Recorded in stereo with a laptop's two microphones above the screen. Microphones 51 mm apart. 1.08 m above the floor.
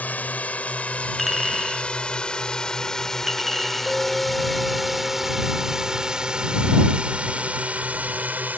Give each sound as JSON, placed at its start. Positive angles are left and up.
{"t": 0.0, "sound": "a drone", "side_deg": 30}
{"t": 1.2, "sound": "a clink", "side_deg": -5}
{"t": 3.9, "sound": "a clink", "side_deg": -10}